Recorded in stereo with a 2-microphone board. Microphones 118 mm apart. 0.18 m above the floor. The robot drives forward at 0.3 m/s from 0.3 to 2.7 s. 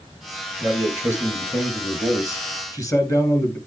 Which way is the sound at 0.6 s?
25° left (ahead or behind).